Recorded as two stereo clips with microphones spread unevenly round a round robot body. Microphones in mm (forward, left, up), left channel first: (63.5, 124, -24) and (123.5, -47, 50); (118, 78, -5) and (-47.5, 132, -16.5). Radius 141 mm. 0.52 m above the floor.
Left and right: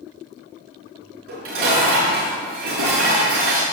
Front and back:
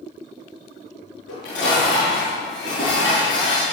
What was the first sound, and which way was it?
Dishes clattering, 75° right.